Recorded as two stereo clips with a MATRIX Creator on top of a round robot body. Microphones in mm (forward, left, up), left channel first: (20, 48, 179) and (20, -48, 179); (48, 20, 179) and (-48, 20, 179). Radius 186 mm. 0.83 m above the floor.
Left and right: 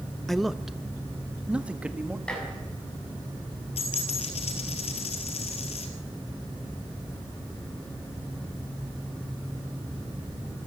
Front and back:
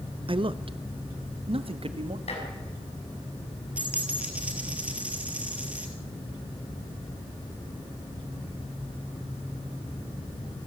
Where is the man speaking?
175° left, 1.0 m; by 2.2 s 165° right, 1.9 m.